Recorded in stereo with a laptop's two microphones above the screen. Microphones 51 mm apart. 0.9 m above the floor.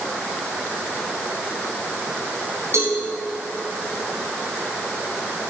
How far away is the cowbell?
About 4 m.